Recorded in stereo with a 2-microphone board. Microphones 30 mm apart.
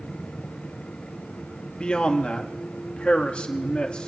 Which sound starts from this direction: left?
A man speaking, at 1.8 s.